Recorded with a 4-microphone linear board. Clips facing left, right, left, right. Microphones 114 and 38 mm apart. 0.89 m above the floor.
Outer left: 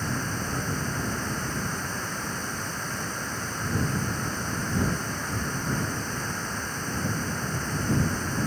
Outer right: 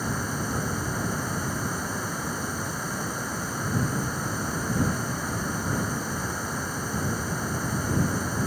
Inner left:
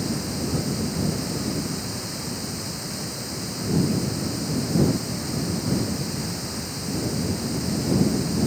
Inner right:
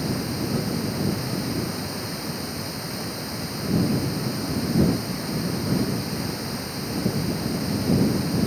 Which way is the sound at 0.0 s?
10° right (ahead or behind).